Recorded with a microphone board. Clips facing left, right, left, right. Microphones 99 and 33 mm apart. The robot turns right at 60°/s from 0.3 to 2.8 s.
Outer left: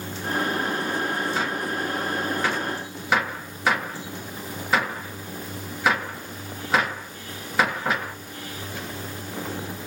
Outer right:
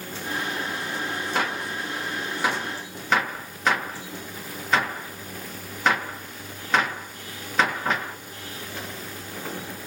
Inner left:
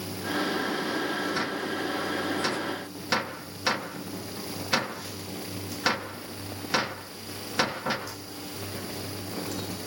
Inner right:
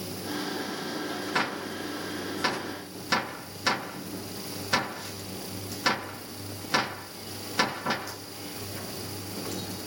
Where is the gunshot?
80° right, 1.1 m; by 8.2 s 5° left (ahead or behind), 1.1 m.